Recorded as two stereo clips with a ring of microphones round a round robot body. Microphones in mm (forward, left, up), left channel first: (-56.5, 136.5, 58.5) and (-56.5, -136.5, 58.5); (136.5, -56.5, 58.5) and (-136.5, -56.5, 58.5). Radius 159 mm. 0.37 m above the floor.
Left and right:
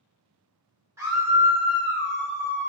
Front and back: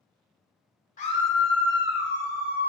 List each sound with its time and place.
1.0 s a scream: 20° right, 1.2 m; by 2.7 s 130° right, 2.5 m